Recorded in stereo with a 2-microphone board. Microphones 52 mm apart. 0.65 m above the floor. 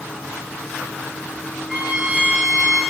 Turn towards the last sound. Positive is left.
turn(degrees=-15)  # may be behind; listen again after turning